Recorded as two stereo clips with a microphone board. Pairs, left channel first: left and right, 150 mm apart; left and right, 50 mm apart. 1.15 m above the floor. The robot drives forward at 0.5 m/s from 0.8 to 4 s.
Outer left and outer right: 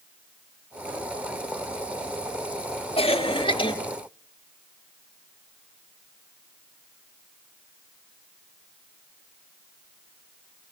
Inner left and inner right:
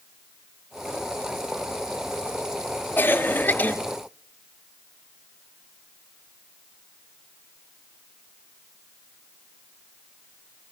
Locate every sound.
3.0 s a cough: 40° left (ahead or behind), 2 m; by 3.7 s 35° left (ahead or behind), 2.5 m